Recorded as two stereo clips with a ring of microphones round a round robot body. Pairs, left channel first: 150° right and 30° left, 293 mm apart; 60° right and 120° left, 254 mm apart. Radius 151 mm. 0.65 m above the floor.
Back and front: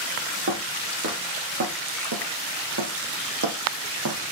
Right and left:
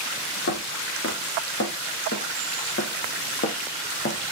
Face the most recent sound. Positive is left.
turn(degrees=-10)